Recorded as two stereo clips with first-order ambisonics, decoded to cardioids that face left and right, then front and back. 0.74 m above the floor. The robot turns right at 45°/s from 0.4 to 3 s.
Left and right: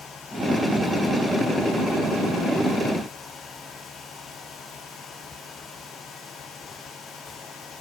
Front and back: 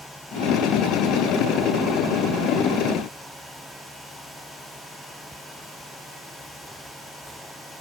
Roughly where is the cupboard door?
I don't hear a cupboard door.